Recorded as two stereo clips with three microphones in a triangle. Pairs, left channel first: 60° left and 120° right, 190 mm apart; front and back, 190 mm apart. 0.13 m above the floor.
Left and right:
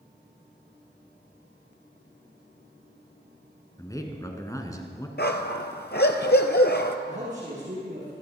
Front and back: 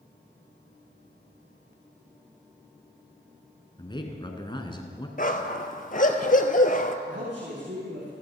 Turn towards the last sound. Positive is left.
turn(degrees=-165)